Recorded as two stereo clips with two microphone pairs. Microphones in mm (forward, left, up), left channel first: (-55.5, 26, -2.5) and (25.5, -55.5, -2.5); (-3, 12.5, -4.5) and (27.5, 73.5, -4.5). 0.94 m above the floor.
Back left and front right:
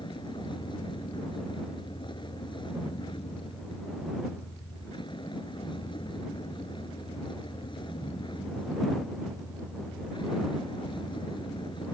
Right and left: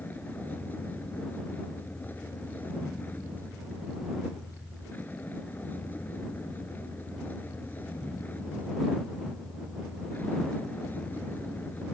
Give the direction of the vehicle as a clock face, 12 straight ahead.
6 o'clock.